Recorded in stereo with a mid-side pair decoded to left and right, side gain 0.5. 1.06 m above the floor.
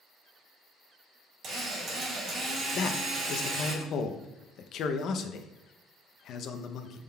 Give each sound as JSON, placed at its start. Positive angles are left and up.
{"t": 1.4, "sound": "a drill", "azimuth_deg": -65, "distance_m": 1.7}
{"t": 2.7, "sound": "a man speaking", "azimuth_deg": 60, "distance_m": 0.6}